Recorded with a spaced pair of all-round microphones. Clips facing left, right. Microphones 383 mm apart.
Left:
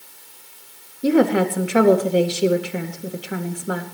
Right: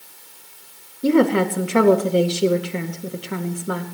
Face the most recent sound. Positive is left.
turn(degrees=-5)  # may be behind; listen again after turning